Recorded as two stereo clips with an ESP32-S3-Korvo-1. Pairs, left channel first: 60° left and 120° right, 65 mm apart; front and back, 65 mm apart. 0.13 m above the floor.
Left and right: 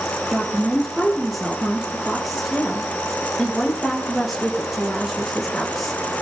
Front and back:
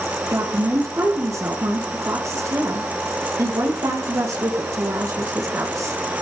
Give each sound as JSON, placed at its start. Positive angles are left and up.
{"t": 0.3, "sound": "a woman speaking", "azimuth_deg": 155, "distance_m": 4.5}